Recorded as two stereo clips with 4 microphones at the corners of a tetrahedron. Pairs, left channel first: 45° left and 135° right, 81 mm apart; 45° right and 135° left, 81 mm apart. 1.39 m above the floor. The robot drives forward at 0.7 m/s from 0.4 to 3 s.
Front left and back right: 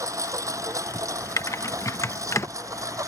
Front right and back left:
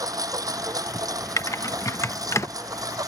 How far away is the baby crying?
I don't hear a baby crying.